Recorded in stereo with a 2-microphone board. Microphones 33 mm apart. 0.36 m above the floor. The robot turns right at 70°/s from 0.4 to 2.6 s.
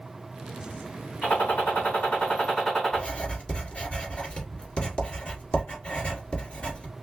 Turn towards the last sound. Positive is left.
turn(degrees=35)  # may be behind; listen again after turning